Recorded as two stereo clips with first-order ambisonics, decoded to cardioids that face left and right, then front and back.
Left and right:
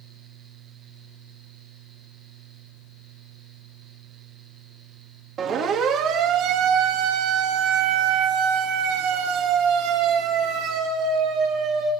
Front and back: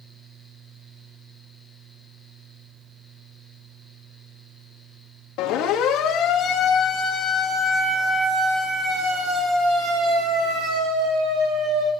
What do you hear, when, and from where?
5.4 s a siren: 35° right, 3 m; by 11.9 s 135° right, 5.5 m